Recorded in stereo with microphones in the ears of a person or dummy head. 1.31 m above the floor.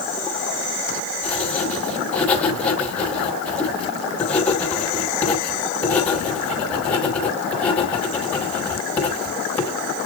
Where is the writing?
10° left (ahead or behind), 4.5 m.